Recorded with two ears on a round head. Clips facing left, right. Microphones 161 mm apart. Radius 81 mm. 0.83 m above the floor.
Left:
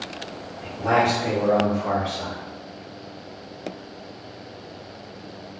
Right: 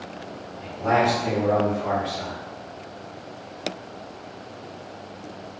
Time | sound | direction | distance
0.6 | a man speaking | 15° left (ahead or behind) | 1.2 m